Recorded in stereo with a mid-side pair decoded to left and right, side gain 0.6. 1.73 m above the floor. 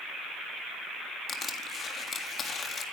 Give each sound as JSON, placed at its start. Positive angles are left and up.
{"t": 1.3, "sound": "crushing", "azimuth_deg": 35, "distance_m": 3.5}